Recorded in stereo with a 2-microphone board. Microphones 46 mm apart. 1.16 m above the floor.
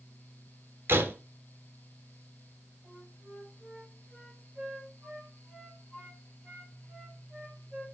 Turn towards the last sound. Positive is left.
turn(degrees=-10)  # may be behind; listen again after turning